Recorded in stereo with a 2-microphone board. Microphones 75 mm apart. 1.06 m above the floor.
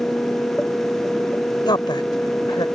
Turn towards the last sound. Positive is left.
turn(degrees=85)